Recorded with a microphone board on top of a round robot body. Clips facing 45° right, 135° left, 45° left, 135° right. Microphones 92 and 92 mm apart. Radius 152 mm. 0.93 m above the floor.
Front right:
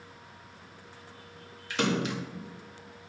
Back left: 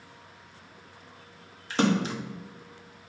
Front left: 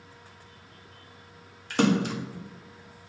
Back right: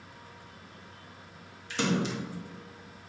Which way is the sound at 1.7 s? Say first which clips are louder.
Back left 4 dB, front left 6 dB; 80° left.